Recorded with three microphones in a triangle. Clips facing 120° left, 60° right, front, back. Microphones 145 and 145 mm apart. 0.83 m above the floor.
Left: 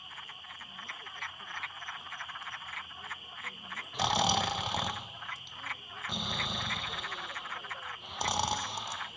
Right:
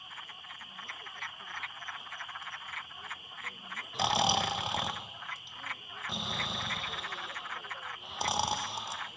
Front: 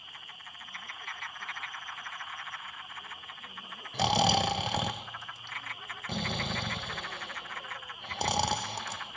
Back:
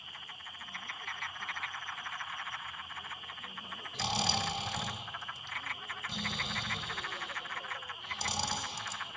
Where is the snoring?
25° left, 0.5 m.